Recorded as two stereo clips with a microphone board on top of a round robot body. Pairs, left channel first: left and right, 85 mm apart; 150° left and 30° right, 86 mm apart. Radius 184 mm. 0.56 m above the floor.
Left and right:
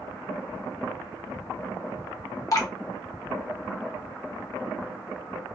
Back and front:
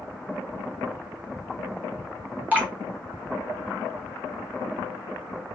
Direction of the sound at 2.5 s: 40° left.